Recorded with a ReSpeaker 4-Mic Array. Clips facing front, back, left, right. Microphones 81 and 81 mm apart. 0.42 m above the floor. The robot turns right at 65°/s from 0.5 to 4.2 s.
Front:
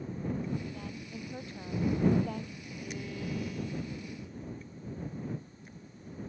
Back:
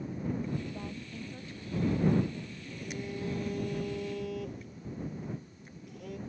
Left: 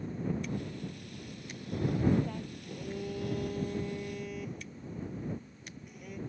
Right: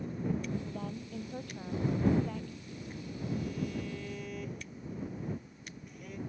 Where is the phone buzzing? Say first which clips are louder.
Back 1 dB, left 5 dB; 75° left; by 6.2 s 175° left.